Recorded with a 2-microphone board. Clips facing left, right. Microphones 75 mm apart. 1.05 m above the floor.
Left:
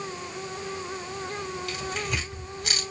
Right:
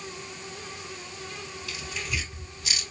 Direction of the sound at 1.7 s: 65° left (ahead or behind).